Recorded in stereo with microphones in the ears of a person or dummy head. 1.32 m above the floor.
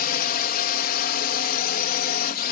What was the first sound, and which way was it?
A drone, 45° left (ahead or behind).